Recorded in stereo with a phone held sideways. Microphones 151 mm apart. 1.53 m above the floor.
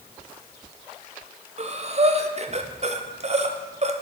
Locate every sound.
1.6 s breathing: 45° right (ahead or behind), 0.5 m